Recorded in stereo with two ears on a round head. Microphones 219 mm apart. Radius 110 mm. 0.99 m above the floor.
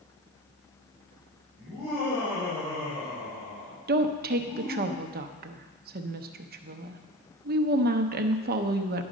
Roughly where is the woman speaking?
Right.